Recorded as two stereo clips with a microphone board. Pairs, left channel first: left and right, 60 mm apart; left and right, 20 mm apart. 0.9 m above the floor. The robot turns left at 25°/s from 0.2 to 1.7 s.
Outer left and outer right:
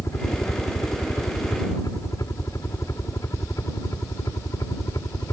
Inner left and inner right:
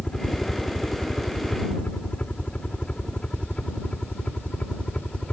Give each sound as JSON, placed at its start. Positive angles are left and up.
{"t": 0.0, "sound": "a helicopter", "side_deg": 55}